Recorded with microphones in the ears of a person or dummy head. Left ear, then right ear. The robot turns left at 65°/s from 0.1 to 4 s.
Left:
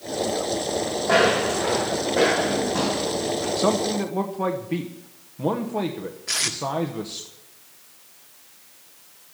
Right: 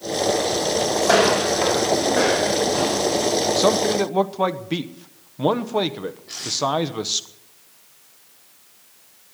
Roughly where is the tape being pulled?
Left.